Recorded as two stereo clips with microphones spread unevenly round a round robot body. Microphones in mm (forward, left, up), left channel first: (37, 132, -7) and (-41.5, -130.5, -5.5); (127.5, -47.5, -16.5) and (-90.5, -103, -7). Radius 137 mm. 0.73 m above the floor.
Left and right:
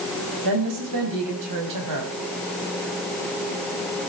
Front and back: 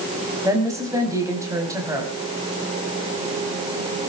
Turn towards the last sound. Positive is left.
turn(degrees=-90)